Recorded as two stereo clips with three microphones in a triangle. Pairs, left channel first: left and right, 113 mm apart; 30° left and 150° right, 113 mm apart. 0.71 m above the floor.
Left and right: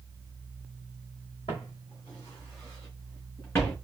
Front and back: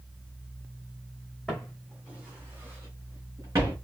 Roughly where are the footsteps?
Behind left.